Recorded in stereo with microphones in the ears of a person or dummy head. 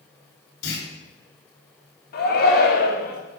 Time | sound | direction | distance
0.6 | a clunk | 70° left (ahead or behind) | 3 m
2.1 | a shout | 45° left (ahead or behind) | 0.9 m